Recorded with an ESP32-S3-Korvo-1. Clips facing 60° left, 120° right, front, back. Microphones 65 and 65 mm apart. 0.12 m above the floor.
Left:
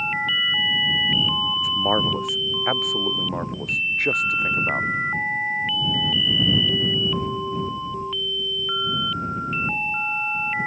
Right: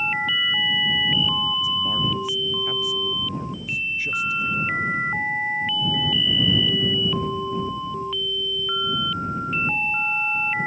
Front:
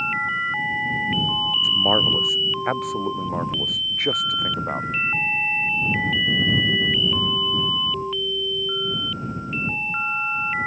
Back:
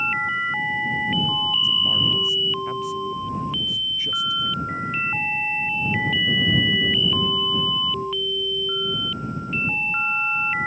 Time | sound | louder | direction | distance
1.6 | a man speaking | left 3 dB, front 3 dB | 30° left | ?